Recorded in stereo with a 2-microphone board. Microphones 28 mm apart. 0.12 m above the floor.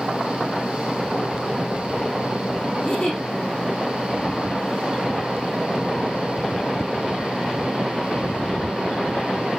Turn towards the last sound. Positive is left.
turn(degrees=40)  # may be behind; listen again after turning